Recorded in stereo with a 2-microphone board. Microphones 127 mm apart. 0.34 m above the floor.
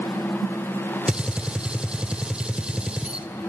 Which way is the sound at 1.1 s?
5° right (ahead or behind).